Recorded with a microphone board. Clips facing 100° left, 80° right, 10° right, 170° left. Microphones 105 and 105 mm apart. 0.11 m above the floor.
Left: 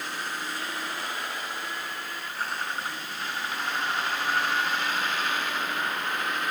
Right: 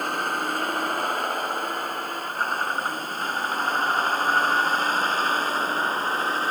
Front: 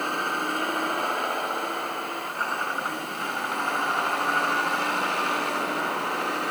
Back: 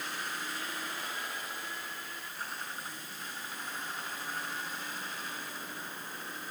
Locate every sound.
0.0 s a vehicle: 40° right; by 6.5 s 25° right